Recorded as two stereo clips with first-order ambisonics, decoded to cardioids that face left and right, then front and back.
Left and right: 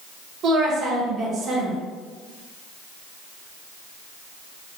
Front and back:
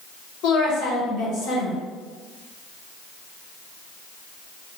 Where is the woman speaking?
35° right, 1.0 m.